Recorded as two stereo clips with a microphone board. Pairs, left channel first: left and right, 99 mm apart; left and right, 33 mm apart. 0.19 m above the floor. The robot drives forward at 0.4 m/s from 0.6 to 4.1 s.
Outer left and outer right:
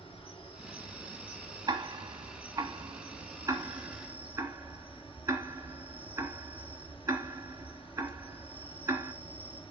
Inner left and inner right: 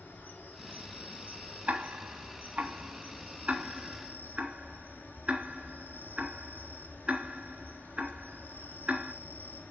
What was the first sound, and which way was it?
An insect, 65° left (ahead or behind).